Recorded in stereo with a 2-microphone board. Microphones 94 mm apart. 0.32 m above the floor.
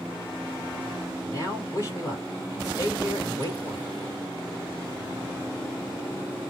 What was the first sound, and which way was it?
A man speaking, 35° left (ahead or behind).